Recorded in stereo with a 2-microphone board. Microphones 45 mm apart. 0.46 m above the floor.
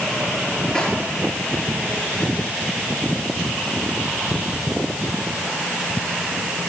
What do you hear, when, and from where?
0.8 s a snare drum: 10° left (ahead or behind), 7 m